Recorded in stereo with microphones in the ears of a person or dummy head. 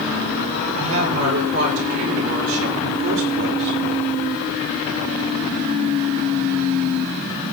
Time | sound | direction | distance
0.8 | a woman speaking | 85° right | 6 m